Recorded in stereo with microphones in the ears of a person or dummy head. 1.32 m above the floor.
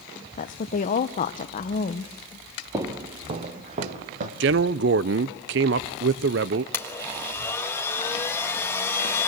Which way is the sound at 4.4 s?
60° right (ahead or behind).